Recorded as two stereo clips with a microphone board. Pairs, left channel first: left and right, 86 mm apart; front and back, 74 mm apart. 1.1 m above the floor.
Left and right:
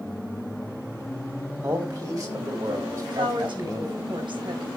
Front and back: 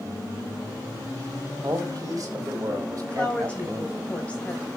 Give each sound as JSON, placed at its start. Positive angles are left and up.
{"t": 1.6, "sound": "a man speaking", "azimuth_deg": -135, "distance_m": 5.0}
{"t": 3.0, "sound": "a woman speaking", "azimuth_deg": -70, "distance_m": 6.0}